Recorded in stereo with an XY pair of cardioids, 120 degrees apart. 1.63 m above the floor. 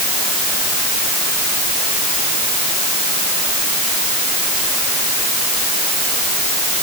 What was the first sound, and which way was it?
Only background noise.